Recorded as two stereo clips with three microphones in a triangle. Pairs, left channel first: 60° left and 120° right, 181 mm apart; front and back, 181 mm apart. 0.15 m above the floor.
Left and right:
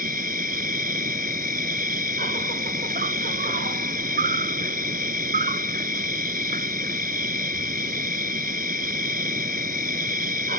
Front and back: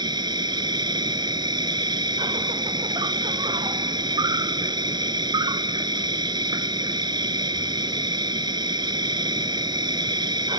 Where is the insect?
125° right.